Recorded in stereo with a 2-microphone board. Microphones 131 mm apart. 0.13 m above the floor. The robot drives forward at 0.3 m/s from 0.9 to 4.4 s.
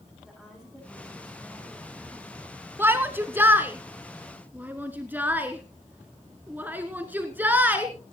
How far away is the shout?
About 1.1 m.